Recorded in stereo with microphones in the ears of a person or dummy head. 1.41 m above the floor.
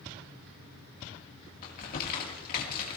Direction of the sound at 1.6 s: 45° left (ahead or behind).